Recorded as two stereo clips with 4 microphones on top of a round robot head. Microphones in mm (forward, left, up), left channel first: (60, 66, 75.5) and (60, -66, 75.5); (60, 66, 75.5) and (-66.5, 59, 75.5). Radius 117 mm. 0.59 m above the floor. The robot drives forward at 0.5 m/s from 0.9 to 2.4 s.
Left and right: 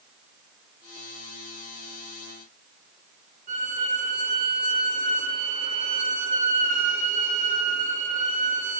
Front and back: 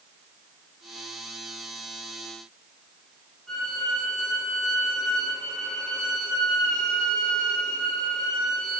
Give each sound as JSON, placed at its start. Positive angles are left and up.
{"t": 3.5, "sound": "a violin", "azimuth_deg": -85, "distance_m": 1.7}